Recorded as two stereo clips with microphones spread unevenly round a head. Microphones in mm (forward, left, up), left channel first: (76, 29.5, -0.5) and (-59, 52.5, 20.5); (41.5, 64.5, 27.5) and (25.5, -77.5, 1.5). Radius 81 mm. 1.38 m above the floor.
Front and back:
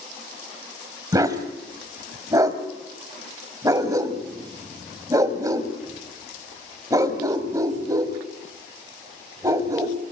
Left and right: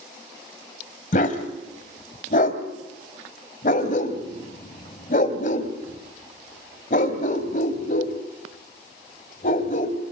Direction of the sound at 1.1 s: 115° left.